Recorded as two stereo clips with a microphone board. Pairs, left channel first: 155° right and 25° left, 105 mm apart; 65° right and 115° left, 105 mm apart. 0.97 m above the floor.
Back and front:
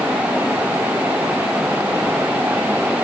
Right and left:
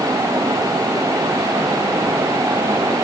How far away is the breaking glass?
I don't hear breaking glass.